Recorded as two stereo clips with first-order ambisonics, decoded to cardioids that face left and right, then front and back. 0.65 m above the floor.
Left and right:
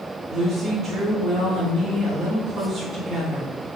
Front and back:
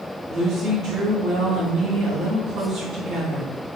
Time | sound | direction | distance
0.3 | a woman speaking | 145° right | 0.8 m